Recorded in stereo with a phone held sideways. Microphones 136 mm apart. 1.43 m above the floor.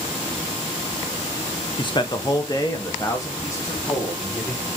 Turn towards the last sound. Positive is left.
turn(degrees=20)  # may be behind; listen again after turning